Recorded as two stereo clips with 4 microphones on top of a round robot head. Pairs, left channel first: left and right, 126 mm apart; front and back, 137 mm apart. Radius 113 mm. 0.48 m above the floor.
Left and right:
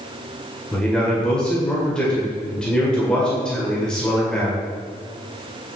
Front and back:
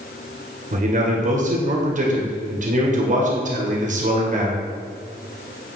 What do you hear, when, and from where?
0.7 s a man speaking: 175° left, 2 m